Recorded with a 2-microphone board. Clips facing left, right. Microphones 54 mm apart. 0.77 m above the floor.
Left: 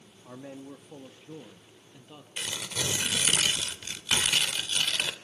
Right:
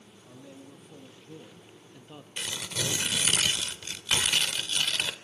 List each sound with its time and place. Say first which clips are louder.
0.2 s a man speaking: left 6 dB; 40° left (ahead or behind), 1.8 m; by 2.3 s 10° right (ahead or behind), 1.3 m
2.4 s tearing paper: even; 5° left (ahead or behind), 2 m